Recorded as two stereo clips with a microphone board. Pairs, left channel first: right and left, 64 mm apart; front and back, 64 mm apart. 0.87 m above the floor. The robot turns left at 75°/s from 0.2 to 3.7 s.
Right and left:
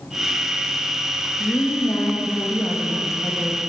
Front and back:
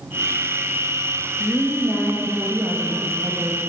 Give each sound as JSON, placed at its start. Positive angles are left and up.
{"t": 1.4, "sound": "a woman speaking", "azimuth_deg": -40, "distance_m": 1.3}